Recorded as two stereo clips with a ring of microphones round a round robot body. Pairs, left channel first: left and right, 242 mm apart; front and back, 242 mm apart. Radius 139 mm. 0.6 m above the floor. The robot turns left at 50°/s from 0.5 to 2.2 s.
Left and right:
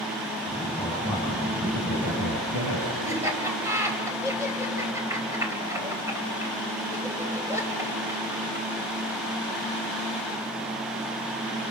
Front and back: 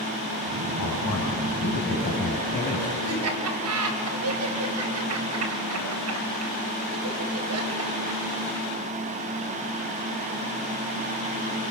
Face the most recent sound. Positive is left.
turn(degrees=-170)